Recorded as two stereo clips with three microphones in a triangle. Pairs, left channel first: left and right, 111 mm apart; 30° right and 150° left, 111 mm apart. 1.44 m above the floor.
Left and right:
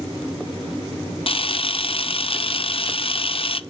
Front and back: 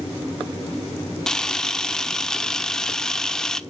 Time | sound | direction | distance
1.3 | a camera shutter | 55° left | 0.5 m